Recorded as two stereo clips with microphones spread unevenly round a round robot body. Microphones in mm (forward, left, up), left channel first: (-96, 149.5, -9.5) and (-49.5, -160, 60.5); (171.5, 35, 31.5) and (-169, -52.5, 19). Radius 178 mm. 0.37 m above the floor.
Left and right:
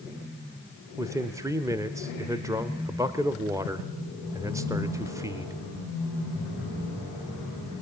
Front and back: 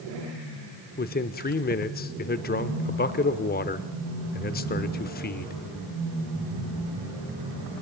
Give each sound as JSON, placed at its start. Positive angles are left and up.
{"t": 1.0, "sound": "a man speaking", "azimuth_deg": 15, "distance_m": 0.8}